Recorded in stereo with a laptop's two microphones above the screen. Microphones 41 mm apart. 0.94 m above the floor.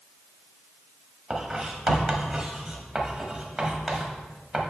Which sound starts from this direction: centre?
Writing, at 1.3 s.